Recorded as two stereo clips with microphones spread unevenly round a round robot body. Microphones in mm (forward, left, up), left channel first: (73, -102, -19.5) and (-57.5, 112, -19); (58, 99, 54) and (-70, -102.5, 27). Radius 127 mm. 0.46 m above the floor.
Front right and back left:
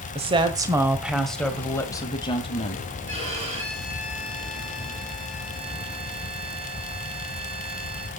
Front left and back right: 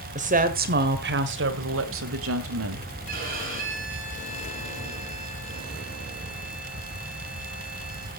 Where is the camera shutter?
No camera shutter in this recording.